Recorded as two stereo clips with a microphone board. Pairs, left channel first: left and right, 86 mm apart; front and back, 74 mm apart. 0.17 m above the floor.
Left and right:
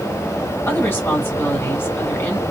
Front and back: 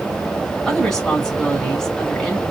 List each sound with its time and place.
0.7 s a woman speaking: 75° left, 1.7 m